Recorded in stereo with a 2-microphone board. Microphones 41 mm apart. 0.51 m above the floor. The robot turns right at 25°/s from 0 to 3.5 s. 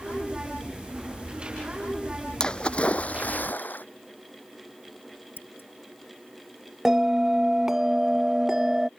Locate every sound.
2.4 s a splash: 20° left (ahead or behind); by 3.9 s 45° left (ahead or behind)
5.4 s scissors: 65° left (ahead or behind)
6.8 s a bell: 10° right (ahead or behind)